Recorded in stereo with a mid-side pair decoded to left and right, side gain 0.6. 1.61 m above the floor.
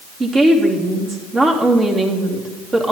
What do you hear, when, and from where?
0.2 s a woman speaking: 30° right, 3 m